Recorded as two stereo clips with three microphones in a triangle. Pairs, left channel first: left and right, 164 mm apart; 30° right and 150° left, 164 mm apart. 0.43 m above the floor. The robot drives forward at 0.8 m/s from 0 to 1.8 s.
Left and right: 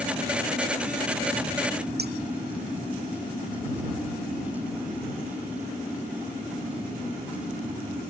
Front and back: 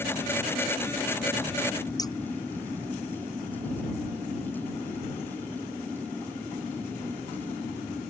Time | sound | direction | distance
2.0 | scissors | 100° right | ?